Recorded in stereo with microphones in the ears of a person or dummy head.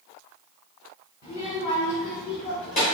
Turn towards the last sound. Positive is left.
turn(degrees=50)  # may be behind; listen again after turning